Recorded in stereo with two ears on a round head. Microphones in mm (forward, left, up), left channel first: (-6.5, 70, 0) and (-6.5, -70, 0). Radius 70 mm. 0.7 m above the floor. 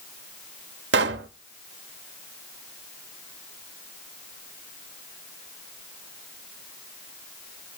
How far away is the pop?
About 1.0 m.